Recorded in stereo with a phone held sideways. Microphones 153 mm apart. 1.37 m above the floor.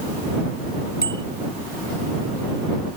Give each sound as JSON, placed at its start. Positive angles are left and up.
{"t": 1.0, "sound": "a bicycle bell", "side_deg": 80}